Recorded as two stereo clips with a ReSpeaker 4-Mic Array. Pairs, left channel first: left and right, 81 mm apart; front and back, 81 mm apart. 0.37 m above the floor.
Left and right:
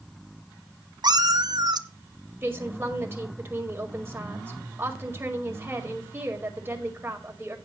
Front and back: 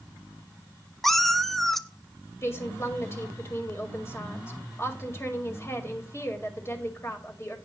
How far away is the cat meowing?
About 0.7 m.